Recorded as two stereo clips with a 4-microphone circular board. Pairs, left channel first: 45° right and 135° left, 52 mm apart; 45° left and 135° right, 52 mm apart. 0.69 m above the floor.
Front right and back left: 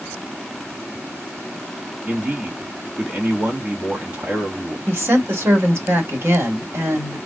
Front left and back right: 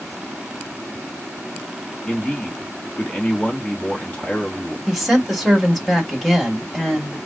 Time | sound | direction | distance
2.1 | a man speaking | 90° left | 1.5 m
4.9 | a woman speaking | 135° left | 1.8 m